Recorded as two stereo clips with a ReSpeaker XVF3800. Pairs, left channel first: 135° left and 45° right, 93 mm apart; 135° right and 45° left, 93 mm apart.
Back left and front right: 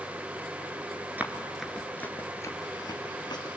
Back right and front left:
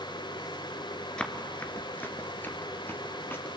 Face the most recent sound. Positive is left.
turn(degrees=160)